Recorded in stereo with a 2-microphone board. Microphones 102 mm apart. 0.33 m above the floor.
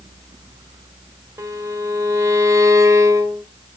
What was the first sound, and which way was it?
A violin, 30° right (ahead or behind).